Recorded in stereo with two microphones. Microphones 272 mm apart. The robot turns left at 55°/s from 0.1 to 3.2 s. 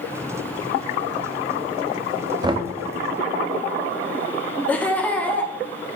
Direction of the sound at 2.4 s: 15° right (ahead or behind).